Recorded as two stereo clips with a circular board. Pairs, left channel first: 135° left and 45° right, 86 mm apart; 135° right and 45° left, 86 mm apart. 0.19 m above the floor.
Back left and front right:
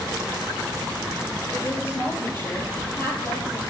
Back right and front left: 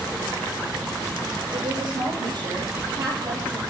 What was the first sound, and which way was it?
A woman speaking, 75° left.